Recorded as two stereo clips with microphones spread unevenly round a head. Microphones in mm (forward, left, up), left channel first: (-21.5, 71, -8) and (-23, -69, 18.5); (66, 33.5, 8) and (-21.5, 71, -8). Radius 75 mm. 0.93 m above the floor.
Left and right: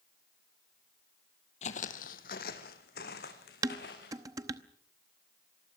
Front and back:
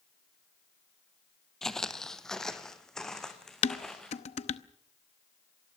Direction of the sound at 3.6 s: 20° right.